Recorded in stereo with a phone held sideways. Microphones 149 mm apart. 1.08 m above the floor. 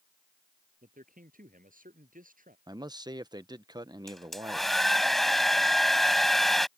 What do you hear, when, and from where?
0.8 s a man speaking: 65° right (ahead or behind)
2.7 s a man speaking: 25° right (ahead or behind)
4.1 s a hair dryer: centre (ahead or behind)